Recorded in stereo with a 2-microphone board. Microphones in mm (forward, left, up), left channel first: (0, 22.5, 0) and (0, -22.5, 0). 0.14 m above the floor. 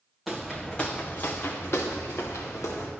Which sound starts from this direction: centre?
Footsteps, at 0.3 s.